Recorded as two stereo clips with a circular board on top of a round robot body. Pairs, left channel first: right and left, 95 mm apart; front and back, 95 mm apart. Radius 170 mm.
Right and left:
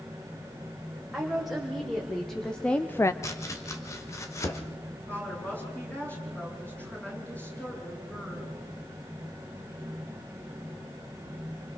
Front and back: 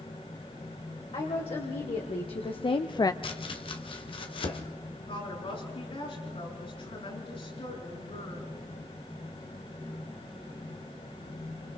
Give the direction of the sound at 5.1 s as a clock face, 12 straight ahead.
1 o'clock.